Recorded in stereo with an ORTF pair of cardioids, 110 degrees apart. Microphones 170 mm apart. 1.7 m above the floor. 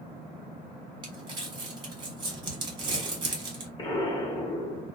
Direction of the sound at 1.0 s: 25° right.